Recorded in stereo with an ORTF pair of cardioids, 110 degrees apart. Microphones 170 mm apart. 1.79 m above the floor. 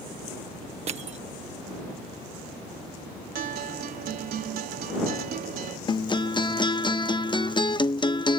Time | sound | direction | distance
0.9 | crushing | 40° right | ?
3.4 | a guitar | 60° right | ?
5.9 | a guitar | 30° left | ?